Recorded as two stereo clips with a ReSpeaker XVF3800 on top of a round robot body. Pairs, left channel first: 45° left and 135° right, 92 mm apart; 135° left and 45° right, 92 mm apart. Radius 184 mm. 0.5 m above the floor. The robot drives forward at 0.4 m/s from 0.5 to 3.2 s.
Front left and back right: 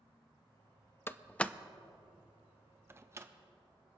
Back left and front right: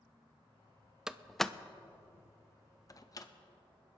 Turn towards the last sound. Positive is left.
turn(degrees=170)